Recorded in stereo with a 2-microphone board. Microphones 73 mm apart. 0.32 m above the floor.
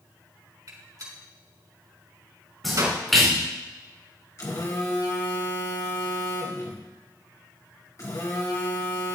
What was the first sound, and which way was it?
A gunshot, 60° right (ahead or behind).